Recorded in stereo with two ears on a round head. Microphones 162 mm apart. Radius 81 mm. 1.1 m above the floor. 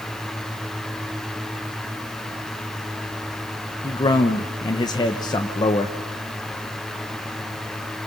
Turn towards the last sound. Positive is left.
turn(degrees=25)  # may be behind; listen again after turning